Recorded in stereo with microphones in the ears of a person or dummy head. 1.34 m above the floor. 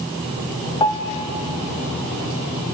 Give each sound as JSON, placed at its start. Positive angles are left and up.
{"t": 0.8, "sound": "a piano", "side_deg": 25, "distance_m": 1.3}